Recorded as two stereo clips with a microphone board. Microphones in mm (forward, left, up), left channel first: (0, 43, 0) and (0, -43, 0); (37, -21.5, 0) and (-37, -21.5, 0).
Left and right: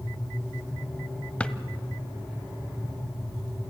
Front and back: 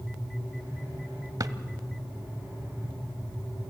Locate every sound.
1.4 s a drawer: 165° left, 0.9 m